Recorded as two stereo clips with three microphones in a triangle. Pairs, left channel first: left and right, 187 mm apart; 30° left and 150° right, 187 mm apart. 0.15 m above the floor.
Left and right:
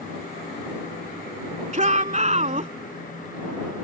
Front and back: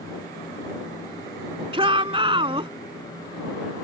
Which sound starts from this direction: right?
A shout, at 1.7 s.